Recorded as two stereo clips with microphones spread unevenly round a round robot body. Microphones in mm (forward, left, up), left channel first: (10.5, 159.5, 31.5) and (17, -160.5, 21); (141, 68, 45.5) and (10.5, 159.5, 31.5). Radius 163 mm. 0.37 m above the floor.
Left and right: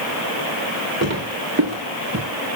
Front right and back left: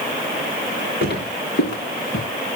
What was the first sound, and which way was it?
Footsteps, 35° right.